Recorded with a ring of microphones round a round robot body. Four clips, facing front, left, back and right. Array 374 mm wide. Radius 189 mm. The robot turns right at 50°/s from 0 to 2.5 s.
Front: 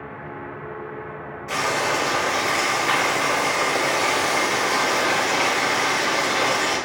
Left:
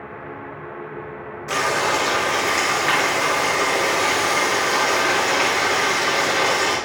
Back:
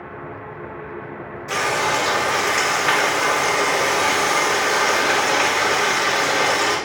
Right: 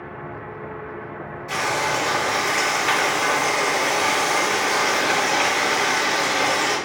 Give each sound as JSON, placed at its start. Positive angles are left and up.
{"t": 1.5, "sound": "frying", "azimuth_deg": 110, "distance_m": 5.0}